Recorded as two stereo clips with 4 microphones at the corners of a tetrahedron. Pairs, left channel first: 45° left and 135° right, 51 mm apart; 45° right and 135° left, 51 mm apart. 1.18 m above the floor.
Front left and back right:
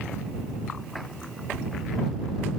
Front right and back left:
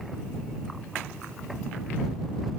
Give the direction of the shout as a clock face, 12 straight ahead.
No shout in this recording.